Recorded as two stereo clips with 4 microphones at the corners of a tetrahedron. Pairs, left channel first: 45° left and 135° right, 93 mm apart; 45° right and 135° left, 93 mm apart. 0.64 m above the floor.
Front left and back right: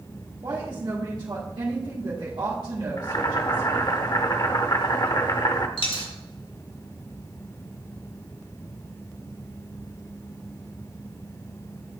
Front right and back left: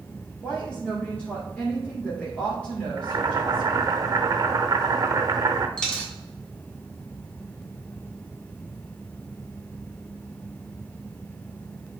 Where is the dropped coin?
40° left, 1.6 m.